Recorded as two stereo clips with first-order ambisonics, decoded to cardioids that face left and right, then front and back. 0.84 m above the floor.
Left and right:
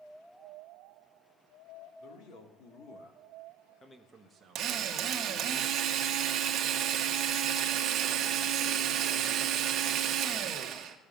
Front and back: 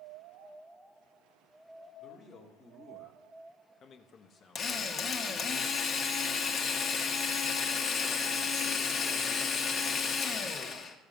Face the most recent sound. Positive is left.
turn(degrees=-55)